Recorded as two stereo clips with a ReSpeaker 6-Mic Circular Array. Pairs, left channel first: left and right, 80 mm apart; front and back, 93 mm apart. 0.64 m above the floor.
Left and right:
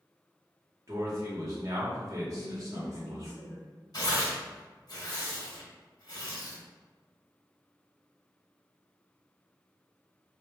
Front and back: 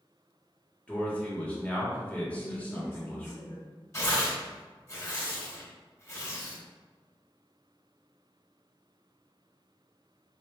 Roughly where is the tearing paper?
Ahead left.